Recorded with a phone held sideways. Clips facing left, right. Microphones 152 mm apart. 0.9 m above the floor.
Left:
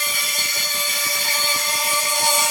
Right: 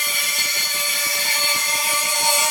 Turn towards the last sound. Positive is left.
turn(degrees=35)  # may be behind; listen again after turning